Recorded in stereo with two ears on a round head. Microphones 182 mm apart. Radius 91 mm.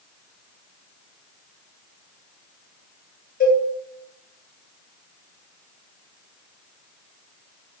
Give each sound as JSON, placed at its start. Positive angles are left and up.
{"t": 3.4, "sound": "a cowbell", "side_deg": 40, "distance_m": 3.0}